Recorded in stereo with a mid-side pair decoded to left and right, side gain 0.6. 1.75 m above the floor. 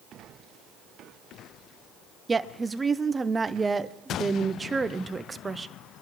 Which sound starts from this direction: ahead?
A woman speaking, at 2.3 s.